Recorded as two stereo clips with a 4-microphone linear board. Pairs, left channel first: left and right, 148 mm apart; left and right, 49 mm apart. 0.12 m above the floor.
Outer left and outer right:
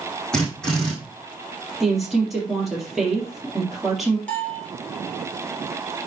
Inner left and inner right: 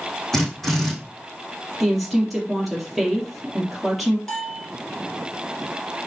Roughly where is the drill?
Centre.